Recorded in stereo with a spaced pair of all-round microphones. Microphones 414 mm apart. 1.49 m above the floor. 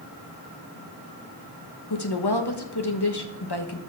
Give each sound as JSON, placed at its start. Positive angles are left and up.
{"t": 1.9, "sound": "a woman speaking", "side_deg": 70, "distance_m": 1.3}